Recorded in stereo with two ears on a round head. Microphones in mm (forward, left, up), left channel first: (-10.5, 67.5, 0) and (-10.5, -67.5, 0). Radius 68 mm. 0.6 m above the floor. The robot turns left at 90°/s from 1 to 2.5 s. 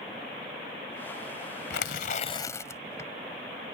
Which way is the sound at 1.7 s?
90° left.